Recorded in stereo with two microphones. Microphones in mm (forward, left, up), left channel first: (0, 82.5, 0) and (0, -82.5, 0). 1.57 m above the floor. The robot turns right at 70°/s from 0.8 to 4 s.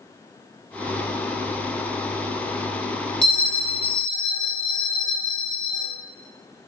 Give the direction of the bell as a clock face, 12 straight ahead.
6 o'clock.